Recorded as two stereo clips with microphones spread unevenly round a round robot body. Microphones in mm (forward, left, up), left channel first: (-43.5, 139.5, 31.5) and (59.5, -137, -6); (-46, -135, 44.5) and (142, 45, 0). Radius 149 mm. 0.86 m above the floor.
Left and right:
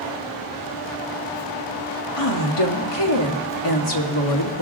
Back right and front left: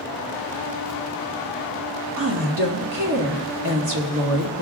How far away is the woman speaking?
About 1.7 m.